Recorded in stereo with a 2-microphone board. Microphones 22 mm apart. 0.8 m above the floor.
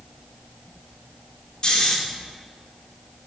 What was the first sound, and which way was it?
Snoring, 40° left (ahead or behind).